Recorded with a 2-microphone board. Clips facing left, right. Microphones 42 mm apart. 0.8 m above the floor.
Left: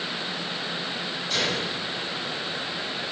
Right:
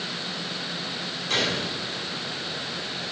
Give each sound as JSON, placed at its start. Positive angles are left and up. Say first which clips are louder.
{"t": 1.3, "sound": "a gunshot", "louder": "right 1 dB", "side_deg": -65, "distance_m": 2.5}